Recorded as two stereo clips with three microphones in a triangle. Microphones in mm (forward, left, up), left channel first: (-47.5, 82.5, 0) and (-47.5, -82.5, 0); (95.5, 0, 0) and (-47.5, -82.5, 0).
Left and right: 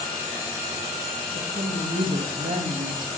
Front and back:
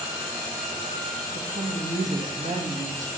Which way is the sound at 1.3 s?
115° right.